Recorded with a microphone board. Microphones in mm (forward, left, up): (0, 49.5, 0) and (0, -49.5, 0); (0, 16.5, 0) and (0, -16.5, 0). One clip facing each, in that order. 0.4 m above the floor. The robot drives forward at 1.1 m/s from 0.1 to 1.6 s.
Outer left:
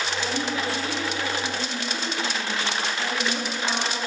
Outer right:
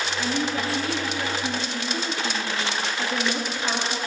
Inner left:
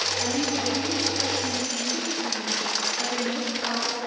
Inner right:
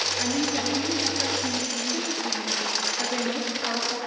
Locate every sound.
0.2 s a woman speaking: 40° right (ahead or behind), 4.5 m; by 4.0 s 30° right (ahead or behind), 6 m